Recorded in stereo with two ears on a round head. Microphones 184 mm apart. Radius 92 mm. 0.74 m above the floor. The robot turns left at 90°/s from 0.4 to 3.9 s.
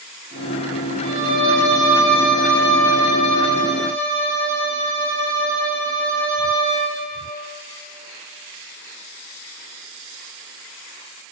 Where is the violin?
85° right, 7 m; by 7.0 s 15° left, 7 m.